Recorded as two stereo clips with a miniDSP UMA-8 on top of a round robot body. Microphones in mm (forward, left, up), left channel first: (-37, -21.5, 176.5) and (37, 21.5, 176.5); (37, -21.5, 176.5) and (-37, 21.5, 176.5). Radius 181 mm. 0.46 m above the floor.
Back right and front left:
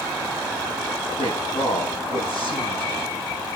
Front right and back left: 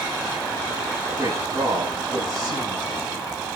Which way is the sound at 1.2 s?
150° right.